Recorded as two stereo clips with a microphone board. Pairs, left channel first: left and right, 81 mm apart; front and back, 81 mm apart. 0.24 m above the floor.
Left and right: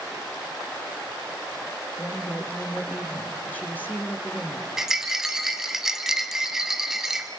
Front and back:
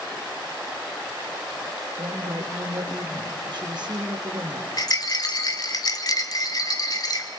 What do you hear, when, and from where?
2.0 s a woman speaking: 160° left, 3.5 m
4.8 s a rattle: 5° right, 1.4 m